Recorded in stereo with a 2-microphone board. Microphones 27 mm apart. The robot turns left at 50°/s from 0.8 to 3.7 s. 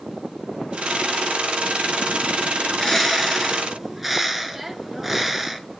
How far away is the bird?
About 0.8 m.